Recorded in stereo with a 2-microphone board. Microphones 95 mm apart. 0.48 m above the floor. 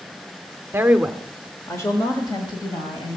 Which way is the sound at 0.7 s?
25° right (ahead or behind).